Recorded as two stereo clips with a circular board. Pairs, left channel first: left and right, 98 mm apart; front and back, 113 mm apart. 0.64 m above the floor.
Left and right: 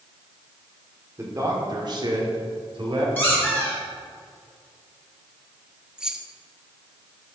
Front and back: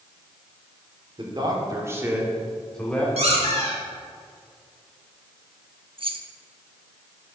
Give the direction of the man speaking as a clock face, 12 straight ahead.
5 o'clock.